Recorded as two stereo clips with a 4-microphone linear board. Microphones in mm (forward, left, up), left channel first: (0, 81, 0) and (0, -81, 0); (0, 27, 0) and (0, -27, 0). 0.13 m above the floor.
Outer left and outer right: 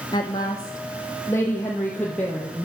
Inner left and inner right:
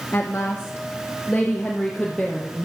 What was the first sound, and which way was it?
A woman speaking, 25° left (ahead or behind).